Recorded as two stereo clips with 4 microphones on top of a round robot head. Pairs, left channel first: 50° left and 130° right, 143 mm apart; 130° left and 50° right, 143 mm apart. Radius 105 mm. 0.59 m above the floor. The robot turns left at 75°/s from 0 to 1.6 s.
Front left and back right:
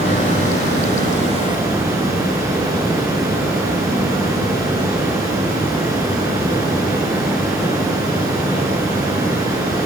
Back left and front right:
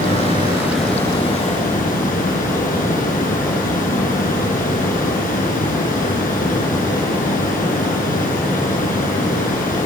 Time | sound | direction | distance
0.0 | running water | 80° right | 7 m